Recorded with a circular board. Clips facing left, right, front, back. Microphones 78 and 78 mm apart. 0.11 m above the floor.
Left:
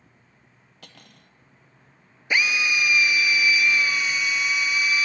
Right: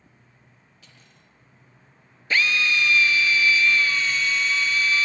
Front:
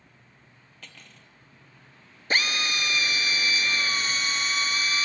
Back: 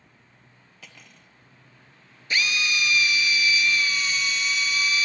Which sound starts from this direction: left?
Cutlery clinking, at 0.8 s.